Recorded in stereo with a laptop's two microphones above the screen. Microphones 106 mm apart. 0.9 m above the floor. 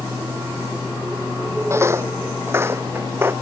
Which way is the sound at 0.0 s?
25° right (ahead or behind).